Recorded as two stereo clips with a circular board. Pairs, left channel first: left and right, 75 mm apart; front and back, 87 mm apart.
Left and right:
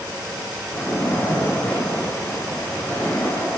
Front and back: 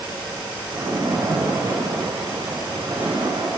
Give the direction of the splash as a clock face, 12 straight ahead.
7 o'clock.